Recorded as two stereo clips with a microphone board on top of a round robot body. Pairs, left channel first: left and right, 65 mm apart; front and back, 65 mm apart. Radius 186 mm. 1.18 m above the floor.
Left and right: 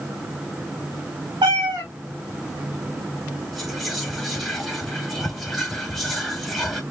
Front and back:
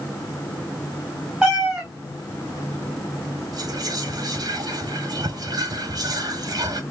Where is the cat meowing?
105° right, 1.4 m.